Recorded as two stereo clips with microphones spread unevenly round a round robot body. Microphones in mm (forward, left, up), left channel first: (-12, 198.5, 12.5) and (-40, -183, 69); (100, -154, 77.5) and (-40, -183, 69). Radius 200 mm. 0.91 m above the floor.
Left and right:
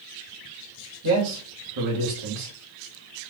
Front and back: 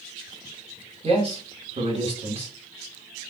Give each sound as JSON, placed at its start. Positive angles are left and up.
{"t": 1.0, "sound": "a man speaking", "azimuth_deg": -125, "distance_m": 2.5}